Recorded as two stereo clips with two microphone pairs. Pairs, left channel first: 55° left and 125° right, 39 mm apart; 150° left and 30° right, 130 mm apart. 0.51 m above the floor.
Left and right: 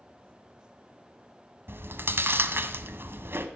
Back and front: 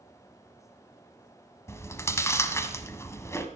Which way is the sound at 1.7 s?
140° right.